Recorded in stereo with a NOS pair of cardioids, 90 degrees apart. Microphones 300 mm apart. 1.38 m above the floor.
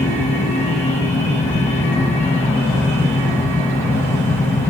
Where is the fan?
10° left, 1.1 m.